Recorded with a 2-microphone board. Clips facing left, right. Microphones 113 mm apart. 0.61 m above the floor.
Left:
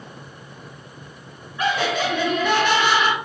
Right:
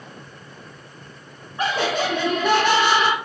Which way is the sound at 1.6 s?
35° right (ahead or behind).